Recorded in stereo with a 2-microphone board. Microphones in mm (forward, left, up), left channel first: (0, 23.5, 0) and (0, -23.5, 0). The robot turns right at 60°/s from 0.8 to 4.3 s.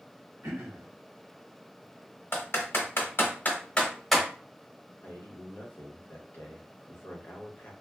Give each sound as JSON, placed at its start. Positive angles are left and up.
{"t": 0.4, "sound": "throat clearing", "side_deg": -60, "distance_m": 1.2}
{"t": 2.3, "sound": "typing on a keyboard", "side_deg": 55, "distance_m": 0.8}
{"t": 5.0, "sound": "a man speaking", "side_deg": 55, "distance_m": 0.9}